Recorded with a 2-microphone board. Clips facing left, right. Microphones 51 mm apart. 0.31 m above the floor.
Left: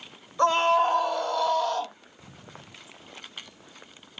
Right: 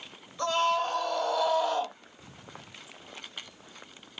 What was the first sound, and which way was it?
A scream, 30° left (ahead or behind).